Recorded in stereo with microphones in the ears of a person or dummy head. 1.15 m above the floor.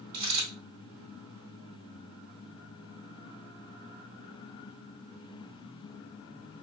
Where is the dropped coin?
55° right (ahead or behind), 2.0 m.